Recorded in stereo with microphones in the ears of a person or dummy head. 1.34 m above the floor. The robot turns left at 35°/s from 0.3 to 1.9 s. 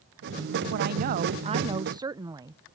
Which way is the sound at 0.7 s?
120° right.